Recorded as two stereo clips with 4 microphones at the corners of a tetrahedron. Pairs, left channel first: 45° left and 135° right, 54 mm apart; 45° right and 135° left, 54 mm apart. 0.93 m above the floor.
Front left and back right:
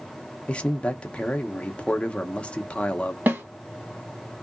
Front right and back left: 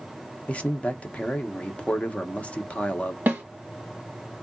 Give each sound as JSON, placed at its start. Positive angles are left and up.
{"t": 0.5, "sound": "a man speaking", "azimuth_deg": -5, "distance_m": 0.6}
{"t": 3.3, "sound": "a snare drum", "azimuth_deg": -175, "distance_m": 1.3}